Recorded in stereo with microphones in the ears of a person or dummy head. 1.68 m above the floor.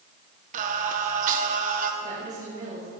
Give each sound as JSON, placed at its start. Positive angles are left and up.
{"t": 0.5, "sound": "singing", "side_deg": -45, "distance_m": 1.2}
{"t": 2.0, "sound": "a woman speaking", "side_deg": -55, "distance_m": 5.5}